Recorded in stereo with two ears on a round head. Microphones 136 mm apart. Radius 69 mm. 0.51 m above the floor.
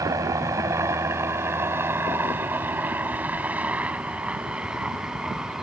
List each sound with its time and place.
0.0 s a helicopter: 20° right (ahead or behind); by 5.6 s 5° right (ahead or behind)